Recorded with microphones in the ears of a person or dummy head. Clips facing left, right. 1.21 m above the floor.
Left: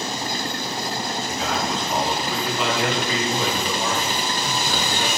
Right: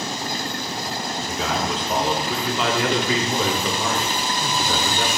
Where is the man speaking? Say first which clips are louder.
Right 2 dB; 65° right (ahead or behind), 3.5 m.